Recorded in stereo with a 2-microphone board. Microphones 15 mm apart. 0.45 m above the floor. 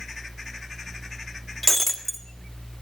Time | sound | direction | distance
1.6 | breaking glass | centre (ahead or behind) | 1.4 m